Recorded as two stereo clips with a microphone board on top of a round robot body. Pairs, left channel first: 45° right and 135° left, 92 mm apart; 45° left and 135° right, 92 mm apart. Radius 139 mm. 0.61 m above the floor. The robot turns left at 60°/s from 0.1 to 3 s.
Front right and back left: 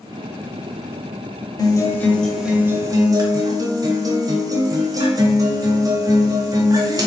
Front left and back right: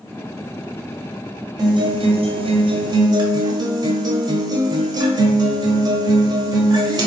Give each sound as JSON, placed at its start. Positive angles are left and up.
{"t": 1.6, "sound": "a guitar", "azimuth_deg": -90, "distance_m": 0.9}